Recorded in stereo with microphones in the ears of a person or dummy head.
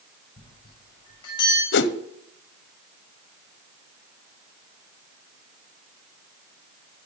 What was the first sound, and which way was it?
A bell, 25° left (ahead or behind).